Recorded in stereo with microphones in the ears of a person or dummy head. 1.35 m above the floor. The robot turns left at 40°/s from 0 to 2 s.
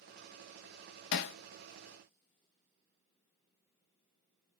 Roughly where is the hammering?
Left.